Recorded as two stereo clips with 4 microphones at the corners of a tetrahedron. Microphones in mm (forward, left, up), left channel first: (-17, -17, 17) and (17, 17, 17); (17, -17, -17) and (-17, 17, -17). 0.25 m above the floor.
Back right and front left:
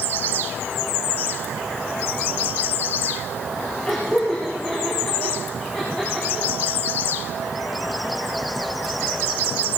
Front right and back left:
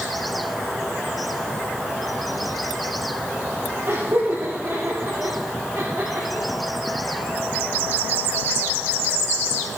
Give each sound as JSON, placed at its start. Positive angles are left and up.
{"t": 3.9, "sound": "laughter", "azimuth_deg": 160, "distance_m": 6.0}